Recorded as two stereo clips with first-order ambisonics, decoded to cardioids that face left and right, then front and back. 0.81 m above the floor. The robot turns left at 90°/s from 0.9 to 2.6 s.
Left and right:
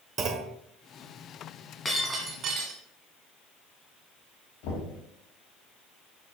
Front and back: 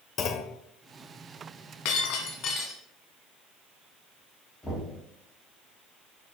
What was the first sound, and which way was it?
A clunk, 45° right.